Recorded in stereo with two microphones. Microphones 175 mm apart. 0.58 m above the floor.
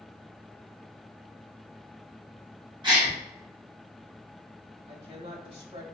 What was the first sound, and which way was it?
A gasp, 25° right (ahead or behind).